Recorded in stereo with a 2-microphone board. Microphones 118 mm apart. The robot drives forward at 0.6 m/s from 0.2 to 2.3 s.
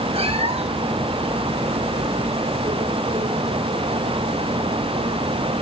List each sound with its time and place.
0.1 s a cat meowing: 55° right (ahead or behind), 1.1 m; by 0.9 s 65° right (ahead or behind), 1.0 m